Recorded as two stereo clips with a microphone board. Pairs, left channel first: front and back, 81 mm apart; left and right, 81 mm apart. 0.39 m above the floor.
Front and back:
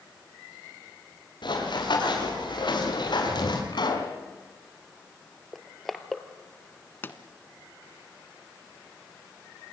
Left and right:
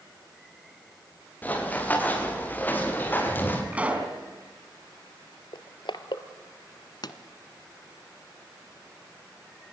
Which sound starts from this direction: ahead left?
A pop, at 7.0 s.